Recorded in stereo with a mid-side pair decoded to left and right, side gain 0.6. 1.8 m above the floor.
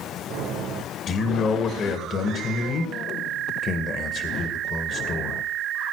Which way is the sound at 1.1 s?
45° left.